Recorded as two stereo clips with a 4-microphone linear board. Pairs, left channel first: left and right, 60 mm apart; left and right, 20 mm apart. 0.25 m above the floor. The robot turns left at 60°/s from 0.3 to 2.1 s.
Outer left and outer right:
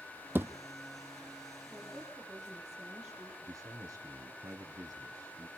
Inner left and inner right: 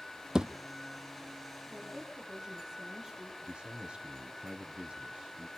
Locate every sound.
0.3 s a thud: 35° right (ahead or behind), 1.0 m; by 0.5 s 45° right (ahead or behind), 1.0 m
1.7 s a woman speaking: 20° left (ahead or behind), 7.5 m; by 3.3 s 5° right (ahead or behind), 7.5 m
3.4 s a man speaking: 65° right (ahead or behind), 4 m